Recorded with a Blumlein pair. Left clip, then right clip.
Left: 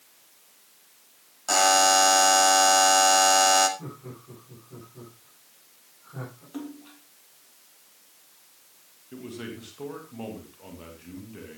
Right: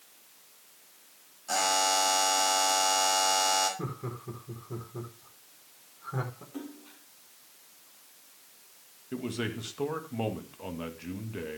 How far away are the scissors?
I don't hear scissors.